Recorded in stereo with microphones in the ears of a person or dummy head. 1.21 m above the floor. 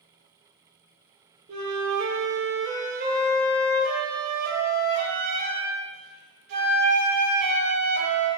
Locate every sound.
1.5 s a flute: 45° right (ahead or behind), 0.8 m